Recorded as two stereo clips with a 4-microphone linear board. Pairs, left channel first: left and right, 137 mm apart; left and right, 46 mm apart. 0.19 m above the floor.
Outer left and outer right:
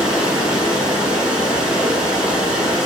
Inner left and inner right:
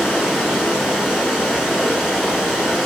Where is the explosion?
No explosion in this recording.